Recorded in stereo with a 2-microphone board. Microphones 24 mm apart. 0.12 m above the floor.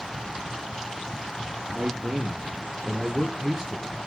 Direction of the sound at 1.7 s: 40° right (ahead or behind).